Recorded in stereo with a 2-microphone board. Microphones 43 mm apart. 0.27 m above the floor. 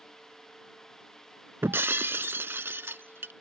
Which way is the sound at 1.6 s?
70° right (ahead or behind).